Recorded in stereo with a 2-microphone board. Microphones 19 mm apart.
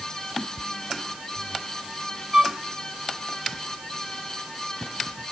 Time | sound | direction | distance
2.3 | a flute | 50° right (ahead or behind) | ?